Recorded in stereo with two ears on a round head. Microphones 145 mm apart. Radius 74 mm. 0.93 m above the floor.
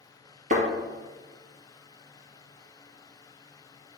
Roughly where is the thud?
Right.